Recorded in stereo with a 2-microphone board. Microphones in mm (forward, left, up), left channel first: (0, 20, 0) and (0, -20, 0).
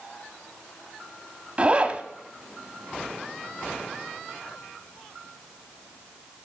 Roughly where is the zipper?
Right.